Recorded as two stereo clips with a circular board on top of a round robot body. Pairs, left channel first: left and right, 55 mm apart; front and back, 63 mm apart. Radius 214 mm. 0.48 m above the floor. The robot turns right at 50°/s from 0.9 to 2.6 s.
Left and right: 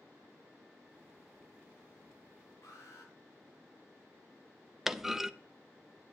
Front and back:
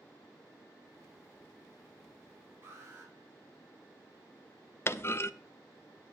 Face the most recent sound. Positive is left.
turn(degrees=-10)